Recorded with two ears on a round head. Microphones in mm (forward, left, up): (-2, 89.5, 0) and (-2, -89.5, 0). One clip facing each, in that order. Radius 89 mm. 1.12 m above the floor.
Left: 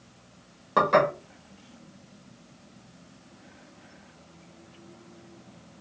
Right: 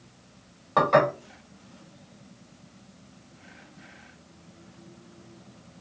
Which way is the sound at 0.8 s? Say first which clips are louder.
Right 1 dB; 15° left (ahead or behind).